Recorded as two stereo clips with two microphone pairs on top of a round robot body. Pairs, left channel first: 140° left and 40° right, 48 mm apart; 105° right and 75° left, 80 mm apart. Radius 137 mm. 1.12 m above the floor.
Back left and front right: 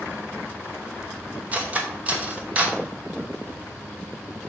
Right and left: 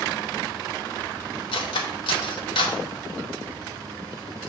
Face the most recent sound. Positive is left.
turn(degrees=-105)